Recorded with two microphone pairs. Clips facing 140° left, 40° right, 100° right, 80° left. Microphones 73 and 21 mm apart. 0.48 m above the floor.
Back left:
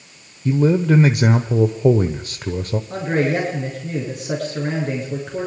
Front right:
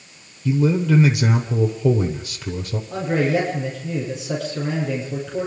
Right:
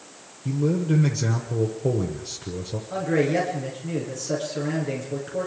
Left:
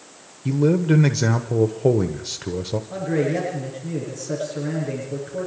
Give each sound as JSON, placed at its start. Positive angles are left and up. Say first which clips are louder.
{"t": 0.5, "sound": "a man speaking", "louder": "back left 2 dB, left 5 dB", "azimuth_deg": 105, "distance_m": 1.2}
{"t": 2.9, "sound": "a man speaking", "louder": "even, right 1 dB", "azimuth_deg": 175, "distance_m": 8.5}